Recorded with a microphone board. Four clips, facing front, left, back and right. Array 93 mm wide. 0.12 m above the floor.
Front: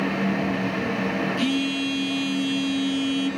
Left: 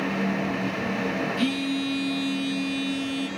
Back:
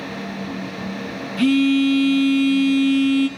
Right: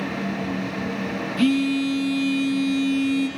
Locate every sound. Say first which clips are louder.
1.4 s a phone buzzing: right 10 dB, back 8 dB; 145° right, 7.5 m